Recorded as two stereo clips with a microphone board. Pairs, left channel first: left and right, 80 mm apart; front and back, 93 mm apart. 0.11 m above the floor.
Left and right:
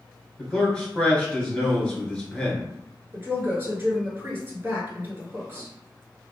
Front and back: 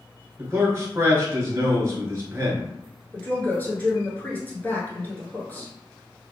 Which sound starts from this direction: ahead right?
A woman speaking, at 3.1 s.